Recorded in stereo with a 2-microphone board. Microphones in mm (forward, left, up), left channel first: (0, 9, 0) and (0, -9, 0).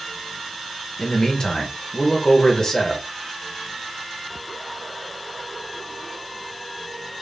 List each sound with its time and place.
1.0 s a man speaking: 25° left (ahead or behind), 1.0 m